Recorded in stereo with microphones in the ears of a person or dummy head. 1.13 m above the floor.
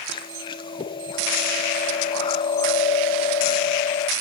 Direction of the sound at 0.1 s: 25° left (ahead or behind).